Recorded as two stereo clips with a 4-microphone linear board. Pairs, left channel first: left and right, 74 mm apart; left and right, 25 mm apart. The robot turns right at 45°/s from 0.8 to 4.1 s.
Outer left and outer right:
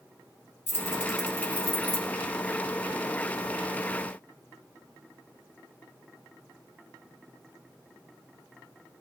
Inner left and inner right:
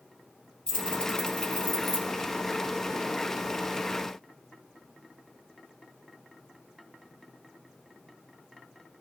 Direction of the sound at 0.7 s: 25° left (ahead or behind).